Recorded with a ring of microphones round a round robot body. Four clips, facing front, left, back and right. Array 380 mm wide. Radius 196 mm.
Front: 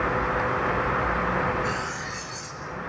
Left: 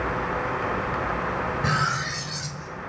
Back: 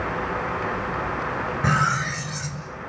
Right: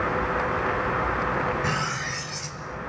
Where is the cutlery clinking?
165° left, 1.8 m.